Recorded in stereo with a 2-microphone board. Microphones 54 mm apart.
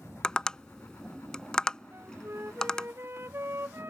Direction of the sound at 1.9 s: 45° right (ahead or behind).